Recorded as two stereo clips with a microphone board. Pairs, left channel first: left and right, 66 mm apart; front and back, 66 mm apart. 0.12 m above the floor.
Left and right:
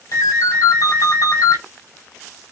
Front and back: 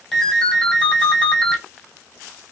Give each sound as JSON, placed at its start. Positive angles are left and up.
{"t": 0.1, "sound": "a ringtone", "azimuth_deg": 85, "distance_m": 1.7}